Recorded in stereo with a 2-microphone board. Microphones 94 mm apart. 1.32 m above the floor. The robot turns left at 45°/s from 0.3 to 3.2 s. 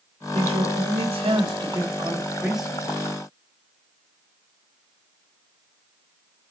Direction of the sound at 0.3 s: 75° right.